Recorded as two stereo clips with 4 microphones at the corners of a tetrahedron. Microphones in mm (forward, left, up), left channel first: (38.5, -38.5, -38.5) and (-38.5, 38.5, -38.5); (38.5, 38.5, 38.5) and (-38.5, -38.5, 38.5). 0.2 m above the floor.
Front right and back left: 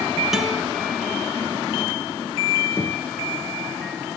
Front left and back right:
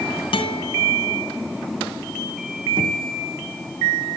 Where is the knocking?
110° right, 2.5 m.